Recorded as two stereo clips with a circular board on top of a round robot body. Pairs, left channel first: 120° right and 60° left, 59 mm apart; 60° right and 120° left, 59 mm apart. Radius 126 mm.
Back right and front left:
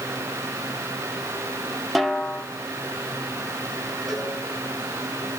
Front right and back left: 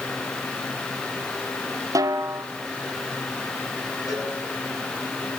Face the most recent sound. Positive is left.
turn(degrees=-30)